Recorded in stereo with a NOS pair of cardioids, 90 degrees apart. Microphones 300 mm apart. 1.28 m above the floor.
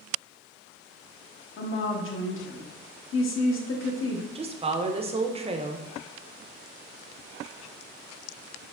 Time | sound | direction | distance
1.6 | a woman speaking | 45° left | 0.9 m
4.3 | a woman speaking | 20° right | 0.6 m